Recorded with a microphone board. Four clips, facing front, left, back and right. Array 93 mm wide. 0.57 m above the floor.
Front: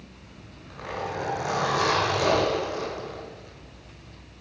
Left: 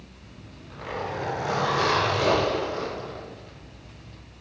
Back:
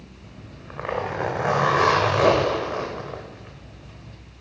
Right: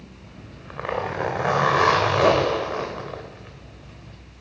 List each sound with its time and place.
0.2 s a zipper: 125° right, 1.8 m